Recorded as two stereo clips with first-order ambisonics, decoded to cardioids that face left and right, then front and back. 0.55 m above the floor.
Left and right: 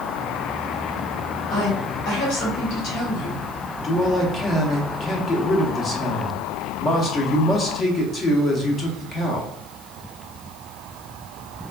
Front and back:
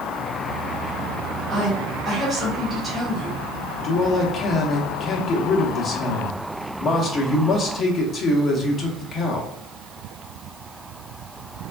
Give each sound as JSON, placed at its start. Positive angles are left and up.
{"t": 1.5, "sound": "a woman speaking", "azimuth_deg": 90, "distance_m": 1.5}
{"t": 3.8, "sound": "a man speaking", "azimuth_deg": 40, "distance_m": 0.7}